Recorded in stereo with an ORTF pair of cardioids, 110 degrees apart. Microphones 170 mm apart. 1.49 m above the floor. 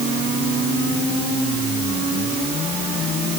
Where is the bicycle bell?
No bicycle bell in this recording.